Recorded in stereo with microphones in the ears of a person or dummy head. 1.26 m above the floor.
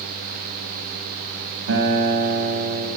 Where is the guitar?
85° right, 6.5 m.